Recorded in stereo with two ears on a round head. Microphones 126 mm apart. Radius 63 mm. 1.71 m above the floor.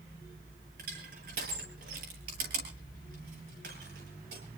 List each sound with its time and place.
0.8 s crushing: 70° right (ahead or behind), 9.5 m